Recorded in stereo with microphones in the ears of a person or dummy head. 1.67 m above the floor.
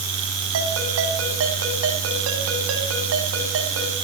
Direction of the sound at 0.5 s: 85° right.